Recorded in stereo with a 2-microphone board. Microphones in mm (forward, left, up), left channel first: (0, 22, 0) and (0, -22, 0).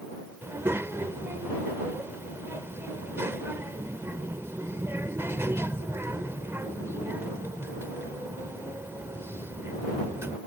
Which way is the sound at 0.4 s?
70° right (ahead or behind).